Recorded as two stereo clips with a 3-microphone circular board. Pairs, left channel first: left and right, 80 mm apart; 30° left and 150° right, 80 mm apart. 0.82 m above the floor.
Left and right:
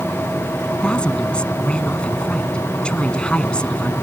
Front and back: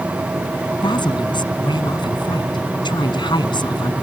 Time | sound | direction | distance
0.7 | a woman speaking | 10° left | ?